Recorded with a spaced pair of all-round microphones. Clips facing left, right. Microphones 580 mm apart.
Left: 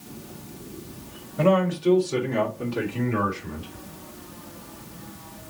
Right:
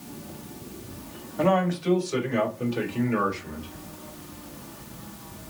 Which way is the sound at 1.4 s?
50° left (ahead or behind).